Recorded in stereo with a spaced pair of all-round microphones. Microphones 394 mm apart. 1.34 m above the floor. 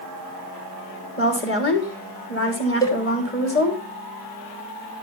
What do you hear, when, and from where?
1.2 s a woman speaking: 35° left (ahead or behind), 3.5 m
2.8 s a cowbell: 10° left (ahead or behind), 2 m